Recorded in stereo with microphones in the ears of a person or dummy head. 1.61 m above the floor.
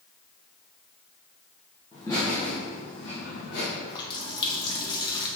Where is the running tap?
30° left (ahead or behind), 1.4 m.